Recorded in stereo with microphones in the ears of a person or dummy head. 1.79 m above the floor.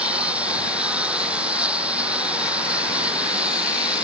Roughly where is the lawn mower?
Centre.